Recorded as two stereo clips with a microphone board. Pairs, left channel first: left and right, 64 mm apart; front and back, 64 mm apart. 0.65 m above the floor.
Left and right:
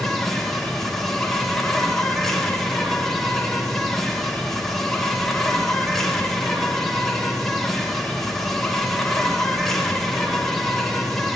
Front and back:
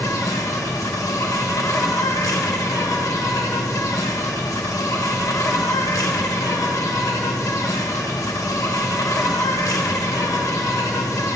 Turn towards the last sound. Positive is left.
turn(degrees=5)